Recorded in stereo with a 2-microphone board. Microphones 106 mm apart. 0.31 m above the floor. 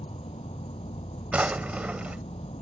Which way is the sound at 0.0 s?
70° left (ahead or behind).